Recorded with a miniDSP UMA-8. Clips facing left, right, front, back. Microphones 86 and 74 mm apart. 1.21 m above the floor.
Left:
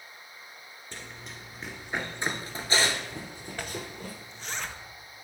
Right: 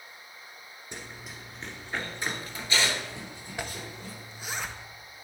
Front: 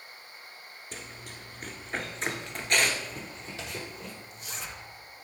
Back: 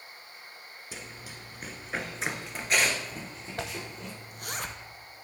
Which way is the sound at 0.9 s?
110° right.